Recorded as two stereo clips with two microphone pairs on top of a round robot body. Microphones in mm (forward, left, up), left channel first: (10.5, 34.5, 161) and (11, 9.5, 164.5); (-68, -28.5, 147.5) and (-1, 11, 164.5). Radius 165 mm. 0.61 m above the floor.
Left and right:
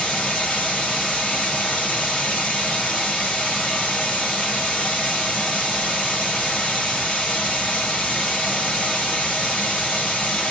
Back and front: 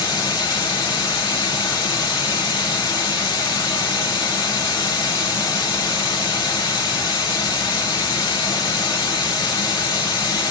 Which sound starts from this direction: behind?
Running water, at 0.0 s.